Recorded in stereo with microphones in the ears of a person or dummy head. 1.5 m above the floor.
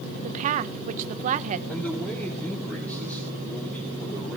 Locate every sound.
0.2 s a woman speaking: 40° right (ahead or behind), 0.9 m
1.7 s a man speaking: 5° left (ahead or behind), 4.5 m